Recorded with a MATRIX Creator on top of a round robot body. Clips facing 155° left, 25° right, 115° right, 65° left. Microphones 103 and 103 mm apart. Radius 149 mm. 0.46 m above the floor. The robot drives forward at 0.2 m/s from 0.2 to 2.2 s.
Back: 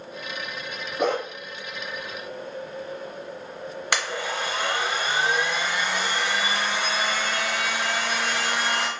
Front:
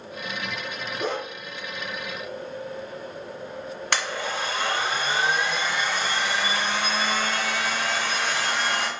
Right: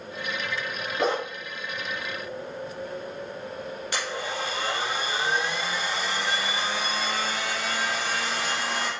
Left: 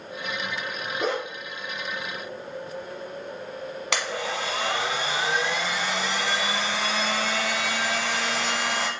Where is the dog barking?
170° right, 0.6 m; by 1.2 s 175° right, 0.7 m.